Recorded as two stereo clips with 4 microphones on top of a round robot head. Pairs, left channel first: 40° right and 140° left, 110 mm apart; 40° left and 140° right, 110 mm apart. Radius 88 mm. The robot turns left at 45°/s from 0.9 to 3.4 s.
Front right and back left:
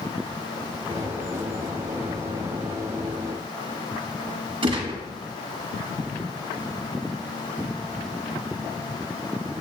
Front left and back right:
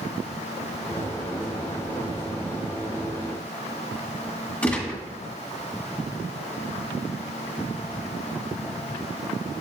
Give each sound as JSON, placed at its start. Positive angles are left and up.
{"t": 4.6, "sound": "a gunshot", "azimuth_deg": 115, "distance_m": 1.6}